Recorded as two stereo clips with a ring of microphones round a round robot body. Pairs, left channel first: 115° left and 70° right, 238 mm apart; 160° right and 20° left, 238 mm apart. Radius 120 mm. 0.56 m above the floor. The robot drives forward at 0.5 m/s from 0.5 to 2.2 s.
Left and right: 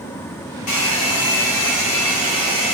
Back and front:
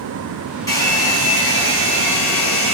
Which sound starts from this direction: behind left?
A hair dryer, at 0.7 s.